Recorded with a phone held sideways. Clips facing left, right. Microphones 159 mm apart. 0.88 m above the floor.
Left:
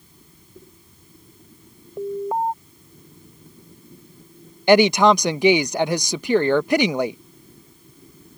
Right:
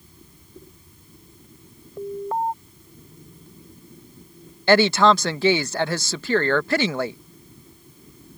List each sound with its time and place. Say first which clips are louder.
2.0 s an alarm: left 2 dB; 15° left (ahead or behind)
4.7 s a woman speaking: left 2 dB; 15° left (ahead or behind)